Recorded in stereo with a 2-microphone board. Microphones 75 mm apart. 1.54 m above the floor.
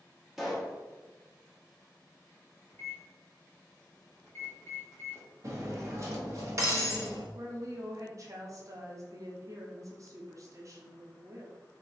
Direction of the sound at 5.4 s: 40° right (ahead or behind).